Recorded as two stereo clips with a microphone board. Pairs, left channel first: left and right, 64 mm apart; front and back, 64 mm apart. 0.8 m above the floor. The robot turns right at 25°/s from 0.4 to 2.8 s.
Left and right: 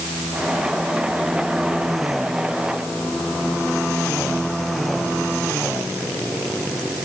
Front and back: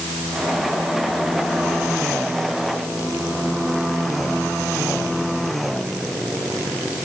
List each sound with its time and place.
Only background noise.